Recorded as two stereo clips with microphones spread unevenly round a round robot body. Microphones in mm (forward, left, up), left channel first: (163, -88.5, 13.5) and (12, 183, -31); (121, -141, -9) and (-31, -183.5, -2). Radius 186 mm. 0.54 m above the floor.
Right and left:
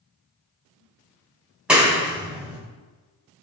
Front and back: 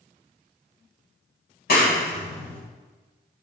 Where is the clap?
35° left, 2.5 m.